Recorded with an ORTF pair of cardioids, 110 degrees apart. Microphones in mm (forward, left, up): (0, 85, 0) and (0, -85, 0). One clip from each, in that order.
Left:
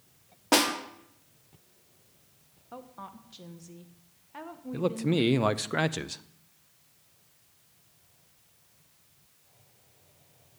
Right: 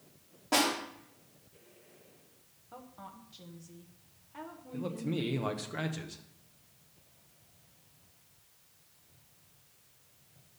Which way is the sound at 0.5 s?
55° left.